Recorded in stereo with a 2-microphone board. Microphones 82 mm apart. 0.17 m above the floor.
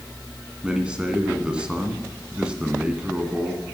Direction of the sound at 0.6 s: 10° right (ahead or behind).